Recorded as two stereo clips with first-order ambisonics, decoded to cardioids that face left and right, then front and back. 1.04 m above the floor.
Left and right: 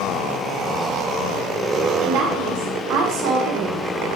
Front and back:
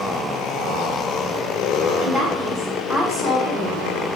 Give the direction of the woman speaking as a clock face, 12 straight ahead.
3 o'clock.